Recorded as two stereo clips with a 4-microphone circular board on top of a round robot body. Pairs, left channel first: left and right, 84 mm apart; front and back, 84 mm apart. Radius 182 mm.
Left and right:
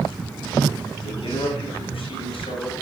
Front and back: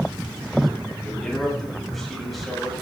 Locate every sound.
1.0 s a man speaking: 85° left, 8.5 m; by 2.7 s 90° left, 7.5 m